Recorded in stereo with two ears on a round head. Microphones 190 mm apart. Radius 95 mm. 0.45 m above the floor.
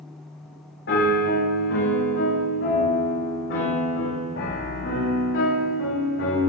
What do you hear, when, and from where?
0.9 s a piano: 55° left (ahead or behind), 6 m